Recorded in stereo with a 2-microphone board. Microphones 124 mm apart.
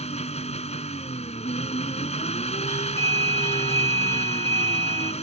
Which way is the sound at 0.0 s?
60° left (ahead or behind).